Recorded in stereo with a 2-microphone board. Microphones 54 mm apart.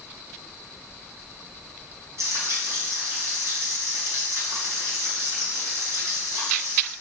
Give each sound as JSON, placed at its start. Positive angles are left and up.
{"t": 2.2, "sound": "frying", "side_deg": -65, "distance_m": 3.5}